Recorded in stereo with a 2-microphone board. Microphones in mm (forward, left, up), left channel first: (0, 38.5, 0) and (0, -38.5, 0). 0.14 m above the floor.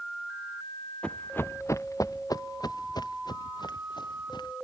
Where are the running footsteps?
15° left (ahead or behind); by 4.5 s 70° left (ahead or behind).